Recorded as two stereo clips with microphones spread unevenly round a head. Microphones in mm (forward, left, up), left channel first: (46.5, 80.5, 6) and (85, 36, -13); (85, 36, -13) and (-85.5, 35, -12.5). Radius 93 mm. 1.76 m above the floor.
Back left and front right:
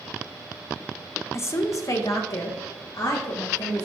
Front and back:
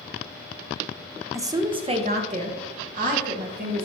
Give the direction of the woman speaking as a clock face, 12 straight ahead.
8 o'clock.